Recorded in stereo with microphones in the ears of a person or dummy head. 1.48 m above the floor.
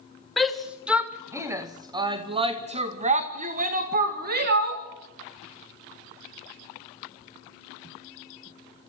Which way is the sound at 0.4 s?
5° left (ahead or behind).